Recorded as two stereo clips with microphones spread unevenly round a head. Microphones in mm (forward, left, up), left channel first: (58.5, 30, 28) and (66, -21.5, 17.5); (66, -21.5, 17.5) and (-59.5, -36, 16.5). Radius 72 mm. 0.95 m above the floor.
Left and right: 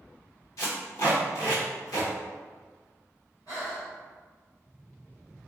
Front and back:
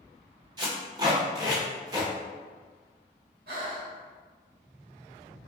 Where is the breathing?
165° left, 1.9 m.